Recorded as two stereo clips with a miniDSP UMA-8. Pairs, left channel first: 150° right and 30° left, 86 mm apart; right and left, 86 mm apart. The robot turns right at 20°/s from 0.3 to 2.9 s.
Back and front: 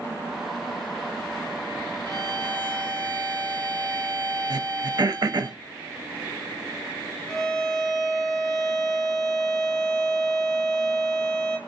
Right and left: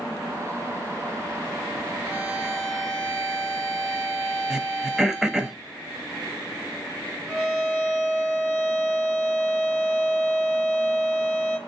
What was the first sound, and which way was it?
A violin, 35° left.